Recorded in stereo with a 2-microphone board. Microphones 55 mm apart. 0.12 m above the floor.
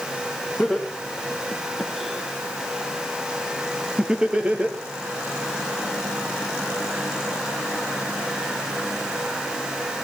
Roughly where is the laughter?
Centre.